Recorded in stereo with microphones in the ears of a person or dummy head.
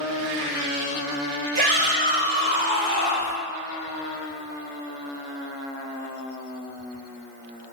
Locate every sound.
1.6 s a shout: 50° right (ahead or behind), 1.1 m; by 3.4 s 40° left (ahead or behind), 0.6 m